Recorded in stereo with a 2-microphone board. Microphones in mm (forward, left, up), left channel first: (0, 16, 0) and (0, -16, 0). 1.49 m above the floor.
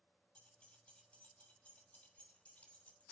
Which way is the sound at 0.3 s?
35° left (ahead or behind).